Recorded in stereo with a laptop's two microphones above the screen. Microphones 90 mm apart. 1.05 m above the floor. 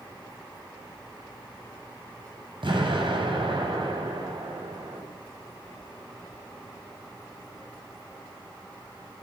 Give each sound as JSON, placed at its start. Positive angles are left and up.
{"t": 2.6, "sound": "an explosion", "side_deg": -65, "distance_m": 7.5}